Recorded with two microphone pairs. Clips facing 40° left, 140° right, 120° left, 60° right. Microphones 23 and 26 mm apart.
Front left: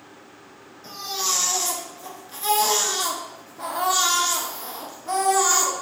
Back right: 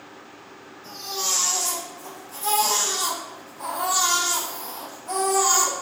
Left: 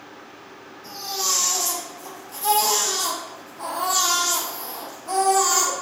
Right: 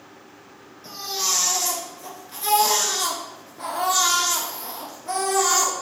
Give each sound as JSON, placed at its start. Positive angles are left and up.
{"t": 0.8, "sound": "a baby crying", "azimuth_deg": -10, "distance_m": 1.0}